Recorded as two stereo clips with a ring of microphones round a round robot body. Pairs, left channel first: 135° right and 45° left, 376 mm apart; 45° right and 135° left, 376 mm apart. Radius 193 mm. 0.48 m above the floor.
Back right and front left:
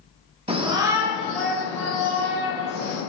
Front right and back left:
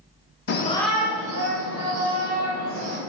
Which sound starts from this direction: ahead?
A shout, at 0.5 s.